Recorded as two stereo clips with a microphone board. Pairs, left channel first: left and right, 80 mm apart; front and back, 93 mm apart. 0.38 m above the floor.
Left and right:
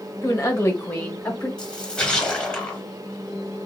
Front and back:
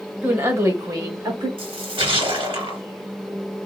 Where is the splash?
170° left, 1.5 m.